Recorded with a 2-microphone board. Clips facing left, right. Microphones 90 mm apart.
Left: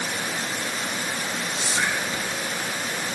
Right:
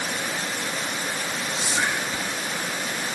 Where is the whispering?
20° right (ahead or behind), 3.5 m.